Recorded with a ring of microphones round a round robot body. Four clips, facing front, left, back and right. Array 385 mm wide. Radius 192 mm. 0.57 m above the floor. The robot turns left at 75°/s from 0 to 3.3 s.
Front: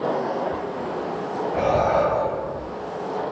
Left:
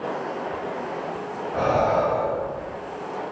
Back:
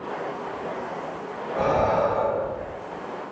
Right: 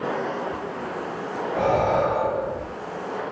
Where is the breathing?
35° left, 0.8 m; by 2.7 s 55° right, 0.8 m.